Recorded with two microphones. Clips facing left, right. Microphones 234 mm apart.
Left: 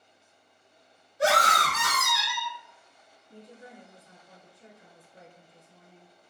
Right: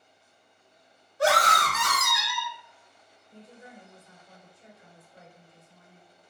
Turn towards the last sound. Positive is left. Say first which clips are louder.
# left 1 dB
turn(degrees=20)  # may be behind; listen again after turning